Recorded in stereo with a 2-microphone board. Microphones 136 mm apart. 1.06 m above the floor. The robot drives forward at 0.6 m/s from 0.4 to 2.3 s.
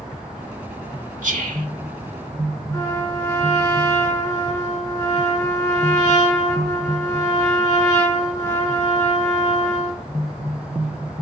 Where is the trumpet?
25° left (ahead or behind), 5 m.